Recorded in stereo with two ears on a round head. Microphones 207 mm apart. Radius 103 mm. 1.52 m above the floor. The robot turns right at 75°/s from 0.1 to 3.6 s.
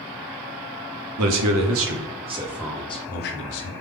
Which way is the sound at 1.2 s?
110° right.